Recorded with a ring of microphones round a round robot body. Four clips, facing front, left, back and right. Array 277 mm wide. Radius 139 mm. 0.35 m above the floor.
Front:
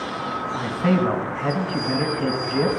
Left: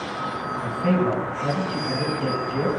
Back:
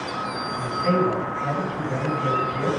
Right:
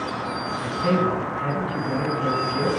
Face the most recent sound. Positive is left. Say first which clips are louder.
# even, front 1 dB
turn(degrees=0)